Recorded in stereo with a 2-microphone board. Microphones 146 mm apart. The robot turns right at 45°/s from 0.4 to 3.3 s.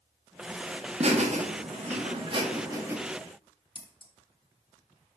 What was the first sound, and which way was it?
Laughter, 50° right (ahead or behind).